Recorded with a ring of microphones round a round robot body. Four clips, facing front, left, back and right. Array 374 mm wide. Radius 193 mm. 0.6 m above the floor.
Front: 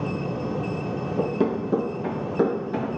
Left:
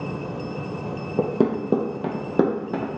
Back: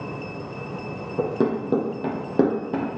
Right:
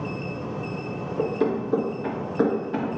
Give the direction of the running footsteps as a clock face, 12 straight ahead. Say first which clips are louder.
Left 3 dB, back 2 dB; 9 o'clock.